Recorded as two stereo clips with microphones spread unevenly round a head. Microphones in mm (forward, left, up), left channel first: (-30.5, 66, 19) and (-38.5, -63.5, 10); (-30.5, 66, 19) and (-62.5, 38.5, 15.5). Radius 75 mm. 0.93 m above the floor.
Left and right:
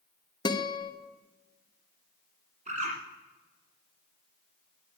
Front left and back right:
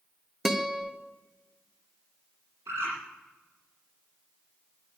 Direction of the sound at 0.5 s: 140° left.